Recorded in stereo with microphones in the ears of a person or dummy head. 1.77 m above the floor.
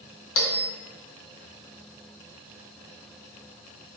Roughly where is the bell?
Left.